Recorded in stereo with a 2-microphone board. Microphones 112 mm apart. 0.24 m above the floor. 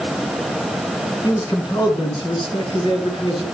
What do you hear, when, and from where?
1.2 s a man speaking: 35° left (ahead or behind), 3 m; by 3.4 s 50° left (ahead or behind), 4.5 m